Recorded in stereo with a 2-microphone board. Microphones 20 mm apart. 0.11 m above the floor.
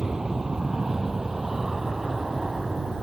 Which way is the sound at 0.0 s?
35° right (ahead or behind).